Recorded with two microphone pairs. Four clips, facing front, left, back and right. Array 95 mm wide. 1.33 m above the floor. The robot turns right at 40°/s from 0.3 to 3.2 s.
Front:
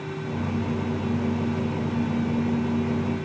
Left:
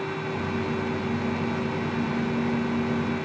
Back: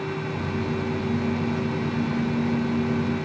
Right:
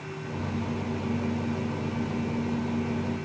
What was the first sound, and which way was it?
Only background noise.